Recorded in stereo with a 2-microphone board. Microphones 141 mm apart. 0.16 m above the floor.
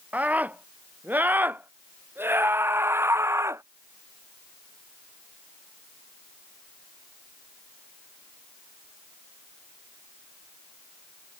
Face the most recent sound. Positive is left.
turn(degrees=-20)  # may be behind; listen again after turning